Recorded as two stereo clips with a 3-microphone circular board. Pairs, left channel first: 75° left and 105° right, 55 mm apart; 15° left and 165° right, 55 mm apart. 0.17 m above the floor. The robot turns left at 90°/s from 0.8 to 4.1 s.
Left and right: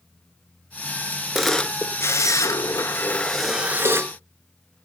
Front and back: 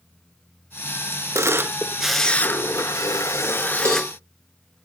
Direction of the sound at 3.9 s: 135° right.